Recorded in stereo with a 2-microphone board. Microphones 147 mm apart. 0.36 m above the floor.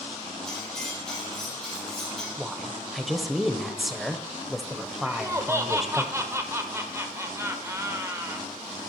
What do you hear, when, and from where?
0.5 s cutlery clinking: 5° left (ahead or behind), 5.5 m
2.4 s a woman speaking: centre (ahead or behind), 1.1 m
5.0 s laughter: 20° right (ahead or behind), 1.2 m